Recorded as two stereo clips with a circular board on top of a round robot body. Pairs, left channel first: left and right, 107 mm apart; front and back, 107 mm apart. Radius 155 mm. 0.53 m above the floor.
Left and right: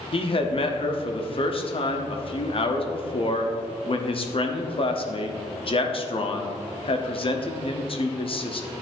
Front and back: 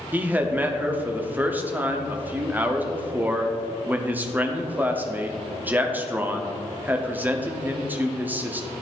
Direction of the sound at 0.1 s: 110° left.